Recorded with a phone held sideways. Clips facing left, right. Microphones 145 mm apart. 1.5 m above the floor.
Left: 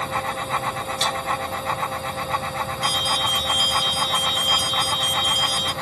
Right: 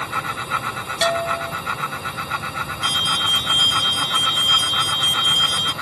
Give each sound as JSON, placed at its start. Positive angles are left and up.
{"t": 0.0, "sound": "a fan", "side_deg": 45}
{"t": 1.0, "sound": "a bell", "side_deg": -60}
{"t": 2.8, "sound": "an alarm", "side_deg": -50}